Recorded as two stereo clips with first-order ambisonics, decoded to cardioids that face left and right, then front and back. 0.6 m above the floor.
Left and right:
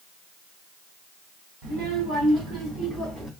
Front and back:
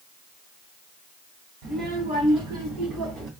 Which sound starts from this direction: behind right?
A child speaking, at 1.6 s.